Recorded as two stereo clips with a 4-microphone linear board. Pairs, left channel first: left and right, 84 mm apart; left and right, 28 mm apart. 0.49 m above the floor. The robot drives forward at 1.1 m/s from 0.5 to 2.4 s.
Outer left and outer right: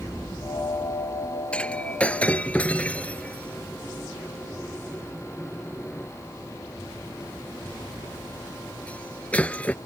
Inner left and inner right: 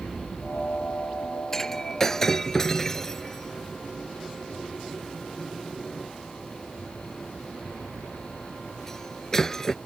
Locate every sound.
1.5 s breaking glass: 15° left (ahead or behind)